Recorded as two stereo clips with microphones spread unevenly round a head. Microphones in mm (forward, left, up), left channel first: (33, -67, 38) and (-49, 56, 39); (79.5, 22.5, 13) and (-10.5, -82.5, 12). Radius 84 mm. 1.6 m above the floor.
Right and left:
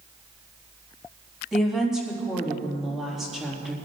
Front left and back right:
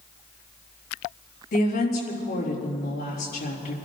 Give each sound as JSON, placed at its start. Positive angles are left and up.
{"t": 1.5, "sound": "a woman speaking", "azimuth_deg": 35, "distance_m": 4.0}